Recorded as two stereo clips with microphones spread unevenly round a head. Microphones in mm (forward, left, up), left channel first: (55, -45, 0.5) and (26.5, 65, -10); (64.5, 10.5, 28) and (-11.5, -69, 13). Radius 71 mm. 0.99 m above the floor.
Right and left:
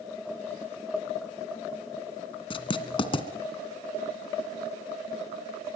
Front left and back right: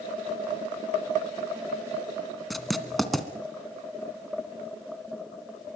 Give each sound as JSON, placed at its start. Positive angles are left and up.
{"t": 2.5, "sound": "writing", "azimuth_deg": -40, "distance_m": 2.0}